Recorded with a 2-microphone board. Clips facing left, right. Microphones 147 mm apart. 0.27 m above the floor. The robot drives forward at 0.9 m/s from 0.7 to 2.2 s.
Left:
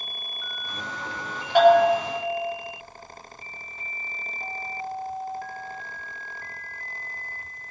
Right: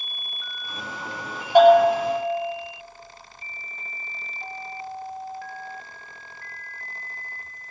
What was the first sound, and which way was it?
A bell, 15° right (ahead or behind).